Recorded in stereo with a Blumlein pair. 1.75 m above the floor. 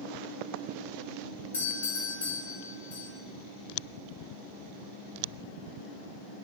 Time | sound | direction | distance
1.5 | a doorbell | 70° left | 2.5 m